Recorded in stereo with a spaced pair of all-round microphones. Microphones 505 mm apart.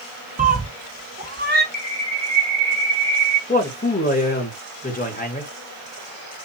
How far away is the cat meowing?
About 0.5 m.